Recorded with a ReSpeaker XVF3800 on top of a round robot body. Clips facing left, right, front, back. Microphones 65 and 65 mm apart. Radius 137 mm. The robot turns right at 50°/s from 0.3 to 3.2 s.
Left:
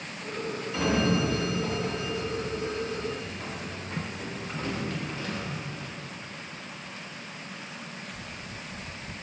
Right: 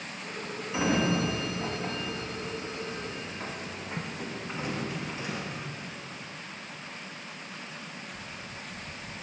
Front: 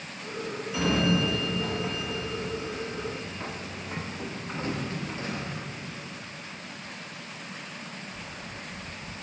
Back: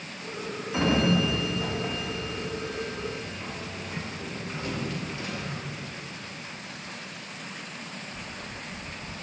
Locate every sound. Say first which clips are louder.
0.7 s a sliding door: left 1 dB, back 2 dB; 145° right, 1.1 m; by 5.5 s 20° right, 1.1 m